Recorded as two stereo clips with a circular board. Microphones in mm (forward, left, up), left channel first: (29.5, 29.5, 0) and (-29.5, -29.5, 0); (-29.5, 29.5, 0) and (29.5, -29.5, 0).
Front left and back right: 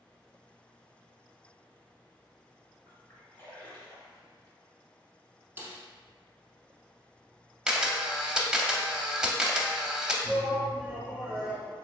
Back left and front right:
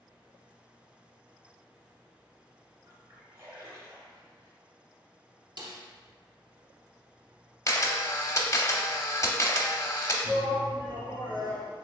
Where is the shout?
170° right, 1.5 m.